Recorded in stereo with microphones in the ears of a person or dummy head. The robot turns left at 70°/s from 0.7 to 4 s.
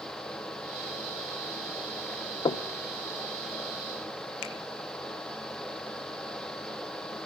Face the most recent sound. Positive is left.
turn(degrees=75)  # may be behind; listen again after turning